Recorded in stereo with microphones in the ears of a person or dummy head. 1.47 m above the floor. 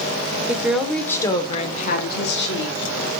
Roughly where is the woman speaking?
Centre.